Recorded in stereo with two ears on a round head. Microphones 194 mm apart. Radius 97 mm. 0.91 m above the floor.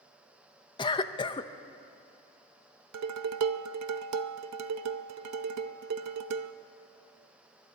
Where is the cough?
20° left (ahead or behind), 0.6 m.